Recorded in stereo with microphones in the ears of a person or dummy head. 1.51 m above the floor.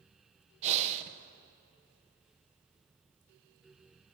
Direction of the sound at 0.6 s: 35° right (ahead or behind).